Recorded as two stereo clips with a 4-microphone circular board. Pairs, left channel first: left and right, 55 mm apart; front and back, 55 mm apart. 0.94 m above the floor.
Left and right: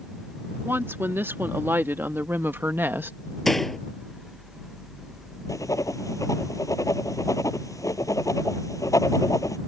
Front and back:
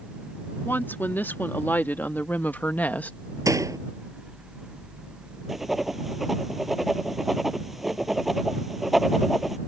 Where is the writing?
95° left.